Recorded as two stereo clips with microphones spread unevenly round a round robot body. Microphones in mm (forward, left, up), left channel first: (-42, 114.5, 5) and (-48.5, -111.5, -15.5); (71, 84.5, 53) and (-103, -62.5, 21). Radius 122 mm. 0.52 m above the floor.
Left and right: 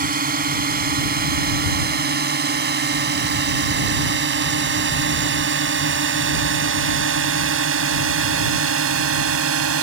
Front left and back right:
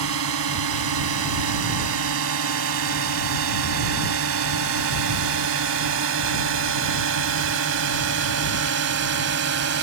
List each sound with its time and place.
0.0 s a drone: 140° right; by 9.8 s 105° right